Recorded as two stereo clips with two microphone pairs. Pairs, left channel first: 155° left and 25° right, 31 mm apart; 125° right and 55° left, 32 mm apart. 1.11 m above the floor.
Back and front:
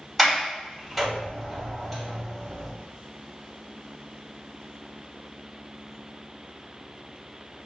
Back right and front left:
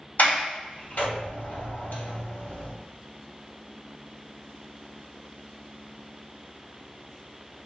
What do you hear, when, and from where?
0.2 s a sliding door: 115° right, 1.5 m